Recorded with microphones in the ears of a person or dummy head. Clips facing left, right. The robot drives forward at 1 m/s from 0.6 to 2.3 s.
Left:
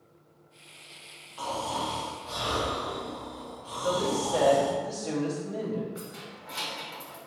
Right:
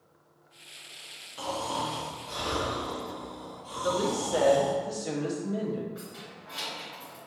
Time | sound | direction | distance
1.4 | snoring | 25° right (ahead or behind) | 0.8 m
3.8 | a woman speaking | 15° right (ahead or behind) | 0.7 m
6.0 | keys jangling | 25° left (ahead or behind) | 1.2 m